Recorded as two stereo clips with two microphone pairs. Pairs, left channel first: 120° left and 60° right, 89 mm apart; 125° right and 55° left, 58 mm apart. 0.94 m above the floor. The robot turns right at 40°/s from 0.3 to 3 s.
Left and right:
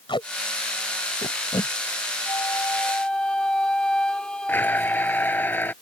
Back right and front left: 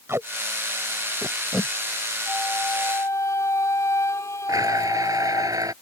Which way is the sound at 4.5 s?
50° left.